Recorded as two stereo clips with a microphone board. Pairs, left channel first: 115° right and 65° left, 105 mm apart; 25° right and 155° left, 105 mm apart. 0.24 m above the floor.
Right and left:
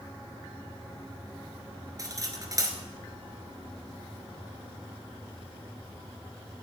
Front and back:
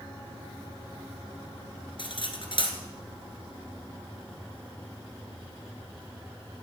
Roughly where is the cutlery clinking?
Ahead.